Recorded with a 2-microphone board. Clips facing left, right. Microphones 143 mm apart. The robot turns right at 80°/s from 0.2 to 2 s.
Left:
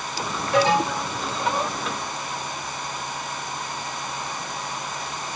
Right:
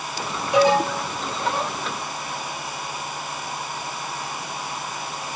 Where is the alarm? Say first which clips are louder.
Right 2 dB; 20° right, 6.5 m; by 1.1 s 25° left, 6.5 m.